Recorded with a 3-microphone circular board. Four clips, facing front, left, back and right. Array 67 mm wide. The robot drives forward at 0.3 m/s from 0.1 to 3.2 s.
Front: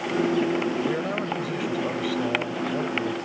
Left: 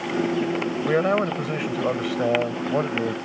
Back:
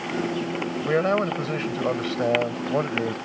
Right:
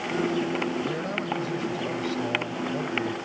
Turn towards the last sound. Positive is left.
turn(degrees=135)